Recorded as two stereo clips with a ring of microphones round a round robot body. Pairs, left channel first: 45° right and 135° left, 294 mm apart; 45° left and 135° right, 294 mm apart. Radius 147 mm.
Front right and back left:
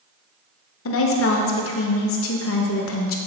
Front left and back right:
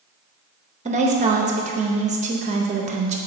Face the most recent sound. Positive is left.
turn(degrees=-75)